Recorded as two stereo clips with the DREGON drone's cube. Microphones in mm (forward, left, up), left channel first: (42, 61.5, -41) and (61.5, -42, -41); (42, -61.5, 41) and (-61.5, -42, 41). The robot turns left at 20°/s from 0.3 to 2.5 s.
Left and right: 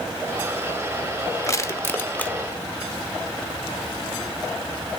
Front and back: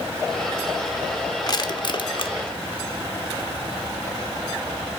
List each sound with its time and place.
1.5 s crushing: 40° left, 1.0 m; by 2.4 s 20° left, 1.0 m